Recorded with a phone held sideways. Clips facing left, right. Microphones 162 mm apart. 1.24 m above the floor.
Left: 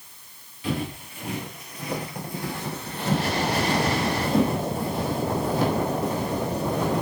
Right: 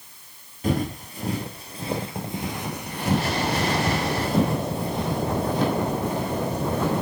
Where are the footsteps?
45° right (ahead or behind), 1.6 m; by 7.0 s 10° left (ahead or behind), 3.5 m.